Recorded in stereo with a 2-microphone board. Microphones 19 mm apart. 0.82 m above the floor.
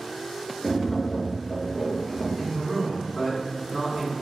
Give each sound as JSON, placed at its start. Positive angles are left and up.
{"t": 0.6, "sound": "tapping", "side_deg": 25, "distance_m": 0.7}
{"t": 2.4, "sound": "a man speaking", "side_deg": -20, "distance_m": 1.0}